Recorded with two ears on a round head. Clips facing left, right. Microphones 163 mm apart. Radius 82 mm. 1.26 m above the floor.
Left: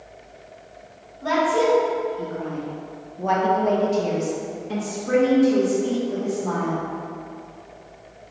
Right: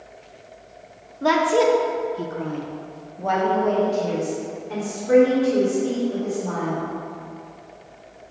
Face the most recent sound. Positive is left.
turn(degrees=60)  # may be behind; listen again after turning